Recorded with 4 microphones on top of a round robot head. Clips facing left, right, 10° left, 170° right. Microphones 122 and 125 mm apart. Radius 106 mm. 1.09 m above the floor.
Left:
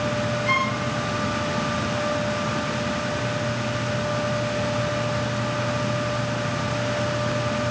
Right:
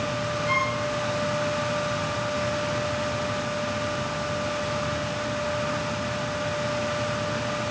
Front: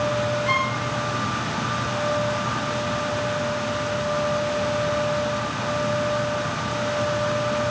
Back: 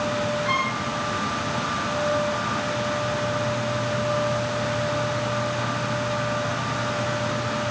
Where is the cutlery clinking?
I don't hear cutlery clinking.